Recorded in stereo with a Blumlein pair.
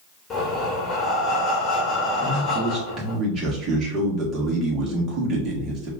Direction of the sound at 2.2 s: 30° right.